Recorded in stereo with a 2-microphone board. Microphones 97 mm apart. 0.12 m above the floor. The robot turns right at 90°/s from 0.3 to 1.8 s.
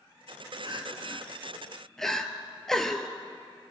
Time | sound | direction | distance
0.7 | crying | 60° right (ahead or behind) | 1.1 m